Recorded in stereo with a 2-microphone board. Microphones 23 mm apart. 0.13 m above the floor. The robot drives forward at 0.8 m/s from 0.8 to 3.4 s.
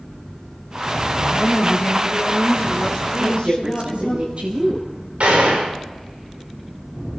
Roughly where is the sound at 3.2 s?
Right.